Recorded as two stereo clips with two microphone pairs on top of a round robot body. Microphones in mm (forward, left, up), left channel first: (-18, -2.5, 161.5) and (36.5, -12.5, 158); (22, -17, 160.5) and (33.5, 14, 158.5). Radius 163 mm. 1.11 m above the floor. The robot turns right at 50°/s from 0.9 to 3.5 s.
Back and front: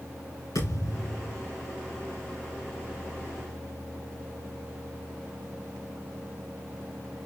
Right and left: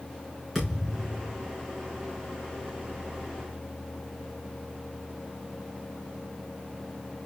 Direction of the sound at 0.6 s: 165° left.